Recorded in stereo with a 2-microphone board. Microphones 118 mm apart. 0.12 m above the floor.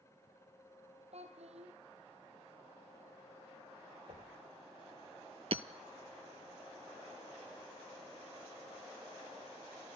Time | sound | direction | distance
1.1 | a child speaking | 65° right (ahead or behind) | 3 m
4.1 | knocking | 65° right (ahead or behind) | 2.5 m
5.5 | hammering | 60° right (ahead or behind) | 0.7 m